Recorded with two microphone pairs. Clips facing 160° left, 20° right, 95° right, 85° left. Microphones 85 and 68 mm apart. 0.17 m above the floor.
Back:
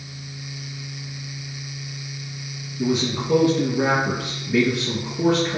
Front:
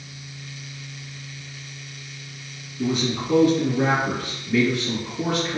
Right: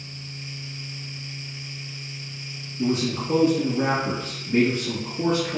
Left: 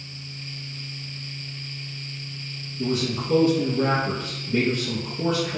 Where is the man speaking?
130° right, 1.9 m.